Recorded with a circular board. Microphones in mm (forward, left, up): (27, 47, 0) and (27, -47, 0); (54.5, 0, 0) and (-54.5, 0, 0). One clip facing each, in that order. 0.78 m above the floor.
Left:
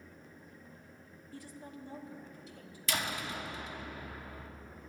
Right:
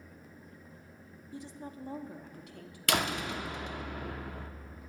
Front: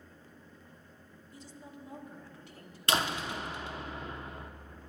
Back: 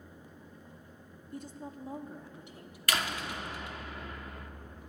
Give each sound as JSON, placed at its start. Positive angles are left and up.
{"t": 1.3, "sound": "a woman speaking", "azimuth_deg": -160, "distance_m": 1.0}
{"t": 2.9, "sound": "a door slam", "azimuth_deg": -65, "distance_m": 0.8}